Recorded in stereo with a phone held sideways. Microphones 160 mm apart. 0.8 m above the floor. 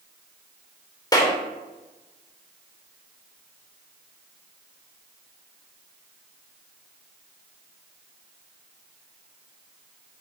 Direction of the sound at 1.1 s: 25° left (ahead or behind).